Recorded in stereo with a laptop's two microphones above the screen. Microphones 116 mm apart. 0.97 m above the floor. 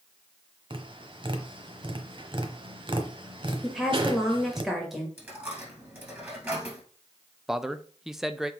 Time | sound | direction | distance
0.7 | tapping | 45° right (ahead or behind) | 1.0 m
3.6 | a woman speaking | centre (ahead or behind) | 1.3 m
5.2 | a dropped coin | 15° right (ahead or behind) | 1.9 m
7.5 | a man speaking | 5° right (ahead or behind) | 0.6 m